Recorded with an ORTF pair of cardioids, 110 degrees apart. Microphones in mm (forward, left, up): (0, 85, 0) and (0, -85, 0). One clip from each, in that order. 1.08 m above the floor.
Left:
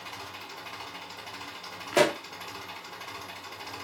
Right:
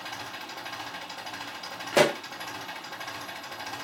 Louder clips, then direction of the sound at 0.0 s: Right 3 dB; 70° right.